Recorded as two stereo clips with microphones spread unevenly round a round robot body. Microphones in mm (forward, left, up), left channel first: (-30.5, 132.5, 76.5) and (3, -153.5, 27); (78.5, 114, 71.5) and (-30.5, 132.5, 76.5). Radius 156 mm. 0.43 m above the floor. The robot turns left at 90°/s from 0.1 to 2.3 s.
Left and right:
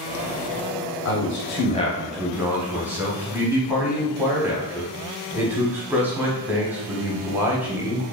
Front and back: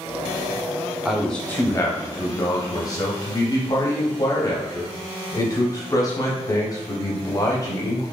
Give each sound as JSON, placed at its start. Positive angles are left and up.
{"t": 1.1, "sound": "a man speaking", "azimuth_deg": 90, "distance_m": 0.9}